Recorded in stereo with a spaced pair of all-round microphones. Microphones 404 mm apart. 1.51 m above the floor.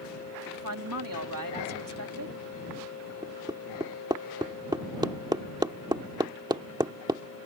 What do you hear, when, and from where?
0.5 s a woman speaking: 55° right (ahead or behind)
3.2 s hammering: 10° right (ahead or behind)